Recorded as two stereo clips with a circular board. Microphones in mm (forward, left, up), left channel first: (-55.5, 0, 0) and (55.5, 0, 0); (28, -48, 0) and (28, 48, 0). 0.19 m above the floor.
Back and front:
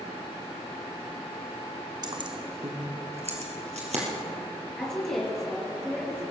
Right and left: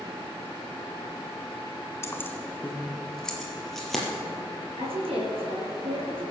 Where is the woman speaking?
95° left, 4 m.